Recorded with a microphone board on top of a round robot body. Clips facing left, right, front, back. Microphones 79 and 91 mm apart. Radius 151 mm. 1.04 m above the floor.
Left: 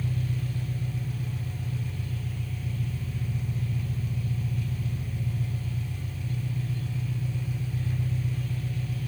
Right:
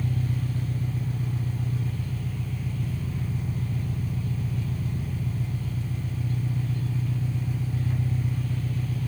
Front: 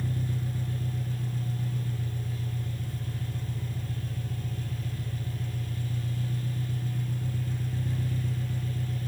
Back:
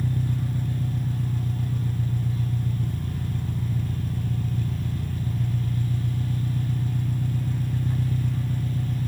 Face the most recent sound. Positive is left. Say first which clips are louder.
# right 2 dB, back 5 dB
turn(degrees=-150)